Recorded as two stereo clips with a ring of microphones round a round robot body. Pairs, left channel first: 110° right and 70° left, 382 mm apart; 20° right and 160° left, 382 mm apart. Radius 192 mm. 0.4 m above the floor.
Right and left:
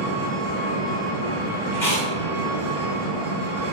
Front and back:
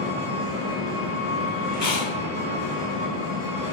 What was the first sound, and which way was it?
An engine running, 35° left.